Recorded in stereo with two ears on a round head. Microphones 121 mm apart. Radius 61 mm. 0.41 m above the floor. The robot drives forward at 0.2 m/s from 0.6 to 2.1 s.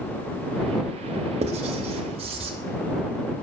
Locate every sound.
1.4 s writing: 50° right (ahead or behind), 0.7 m; by 2.5 s 45° right (ahead or behind), 0.8 m